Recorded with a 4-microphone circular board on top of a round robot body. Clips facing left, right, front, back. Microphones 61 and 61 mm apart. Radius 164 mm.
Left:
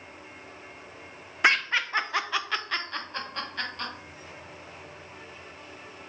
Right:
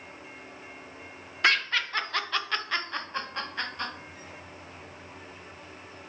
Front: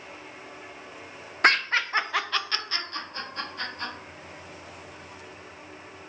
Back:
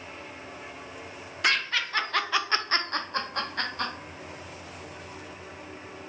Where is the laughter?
25° left, 0.7 m; by 3.9 s 165° right, 1.2 m.